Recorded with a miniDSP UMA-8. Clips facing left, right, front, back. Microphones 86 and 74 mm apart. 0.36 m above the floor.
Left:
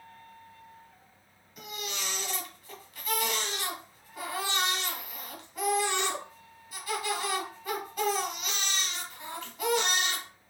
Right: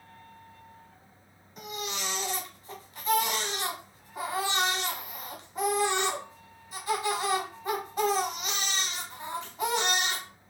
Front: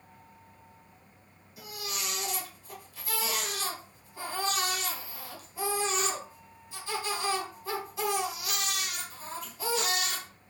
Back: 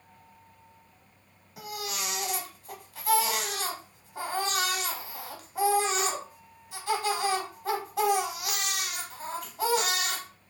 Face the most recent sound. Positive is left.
turn(degrees=-150)